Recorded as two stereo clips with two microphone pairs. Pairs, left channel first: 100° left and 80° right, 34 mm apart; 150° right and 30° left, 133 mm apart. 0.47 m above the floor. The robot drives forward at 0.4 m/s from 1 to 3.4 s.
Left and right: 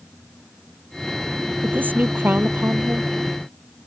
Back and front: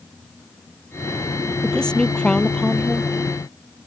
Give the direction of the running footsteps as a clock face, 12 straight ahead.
No running footsteps in this recording.